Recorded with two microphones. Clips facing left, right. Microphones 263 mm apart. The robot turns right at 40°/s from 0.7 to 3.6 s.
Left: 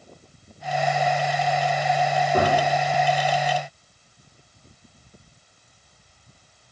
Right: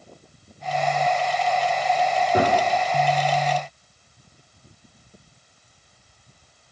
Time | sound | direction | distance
2.3 | a gunshot | 15° right (ahead or behind) | 1.1 m